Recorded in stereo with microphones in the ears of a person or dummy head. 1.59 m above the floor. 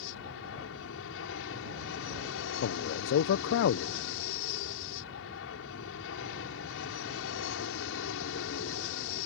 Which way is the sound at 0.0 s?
75° left (ahead or behind).